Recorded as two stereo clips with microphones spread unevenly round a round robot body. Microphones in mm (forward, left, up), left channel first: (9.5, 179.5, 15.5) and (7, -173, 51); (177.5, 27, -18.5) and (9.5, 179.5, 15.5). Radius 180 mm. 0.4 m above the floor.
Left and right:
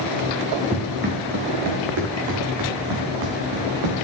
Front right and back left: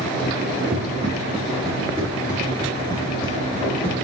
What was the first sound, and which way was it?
Running footsteps, 160° right.